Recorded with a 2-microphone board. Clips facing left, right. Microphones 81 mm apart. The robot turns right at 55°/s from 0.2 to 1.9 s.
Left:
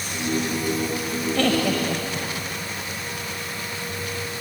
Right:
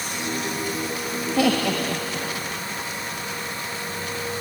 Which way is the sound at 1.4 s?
10° right (ahead or behind).